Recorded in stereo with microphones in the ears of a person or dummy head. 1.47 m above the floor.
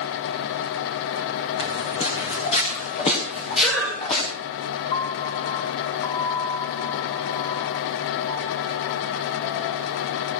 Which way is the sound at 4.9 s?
20° left (ahead or behind).